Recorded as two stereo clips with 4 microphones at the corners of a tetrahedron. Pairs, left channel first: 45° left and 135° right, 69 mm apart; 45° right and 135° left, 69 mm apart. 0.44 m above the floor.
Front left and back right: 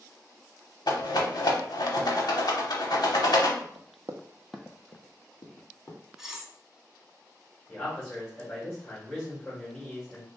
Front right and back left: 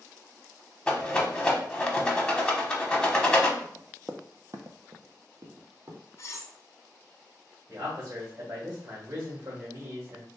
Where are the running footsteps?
115° right, 1.0 m; by 6.0 s 90° left, 1.9 m.